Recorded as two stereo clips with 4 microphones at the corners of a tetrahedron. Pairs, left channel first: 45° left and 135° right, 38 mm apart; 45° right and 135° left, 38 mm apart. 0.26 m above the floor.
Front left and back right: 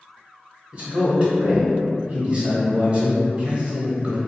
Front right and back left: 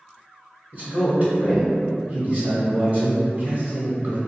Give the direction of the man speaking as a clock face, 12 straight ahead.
6 o'clock.